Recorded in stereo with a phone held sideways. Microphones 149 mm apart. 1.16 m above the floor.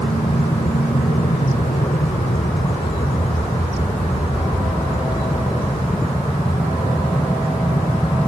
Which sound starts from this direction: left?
An aircraft, at 0.0 s.